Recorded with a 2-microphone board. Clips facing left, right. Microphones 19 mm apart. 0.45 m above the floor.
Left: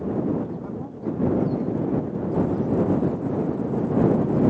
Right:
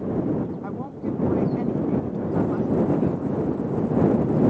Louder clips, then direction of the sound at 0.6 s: Right 1 dB; 45° right (ahead or behind).